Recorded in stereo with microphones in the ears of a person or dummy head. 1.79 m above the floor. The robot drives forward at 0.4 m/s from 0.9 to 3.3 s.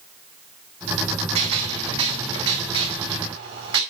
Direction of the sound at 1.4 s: 25° right (ahead or behind).